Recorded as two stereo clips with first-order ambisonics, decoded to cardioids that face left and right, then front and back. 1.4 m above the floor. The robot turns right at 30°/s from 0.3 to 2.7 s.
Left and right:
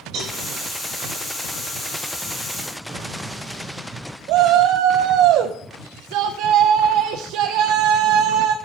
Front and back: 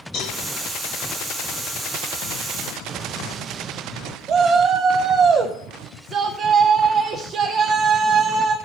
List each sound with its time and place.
0.1 s a cowbell: 40° right, 5.5 m; by 0.4 s 35° right, 5.5 m
2.9 s an explosion: 175° right, 0.6 m
4.3 s a shout: 120° right, 0.7 m